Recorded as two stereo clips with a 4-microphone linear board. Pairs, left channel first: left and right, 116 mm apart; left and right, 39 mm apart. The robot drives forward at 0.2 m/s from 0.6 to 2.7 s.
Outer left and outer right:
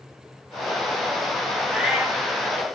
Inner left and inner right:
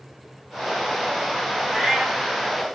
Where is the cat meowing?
5° right (ahead or behind), 0.6 m.